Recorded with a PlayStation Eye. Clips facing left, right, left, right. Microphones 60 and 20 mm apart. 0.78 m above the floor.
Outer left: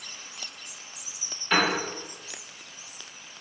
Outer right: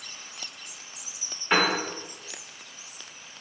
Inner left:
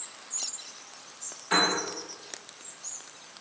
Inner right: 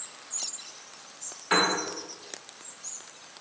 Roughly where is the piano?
Right.